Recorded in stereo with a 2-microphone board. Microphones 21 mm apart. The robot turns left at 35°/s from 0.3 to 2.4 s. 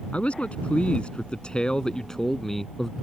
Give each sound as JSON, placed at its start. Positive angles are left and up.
{"t": 0.1, "sound": "a man speaking", "azimuth_deg": 85}